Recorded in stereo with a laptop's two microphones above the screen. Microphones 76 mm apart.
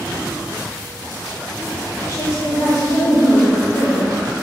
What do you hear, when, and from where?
2.1 s a woman speaking: 55° left (ahead or behind), 3.5 m